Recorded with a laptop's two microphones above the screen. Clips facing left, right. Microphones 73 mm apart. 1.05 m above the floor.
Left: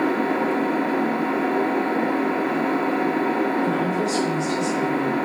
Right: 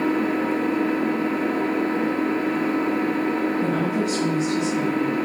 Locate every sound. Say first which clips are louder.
0.0 s an engine running: left 1 dB; 60° left (ahead or behind), 0.9 m
3.6 s a woman speaking: left 1 dB; 65° right (ahead or behind), 1.4 m